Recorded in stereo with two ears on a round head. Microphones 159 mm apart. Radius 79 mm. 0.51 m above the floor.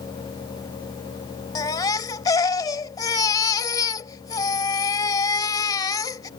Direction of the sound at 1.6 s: 20° left (ahead or behind).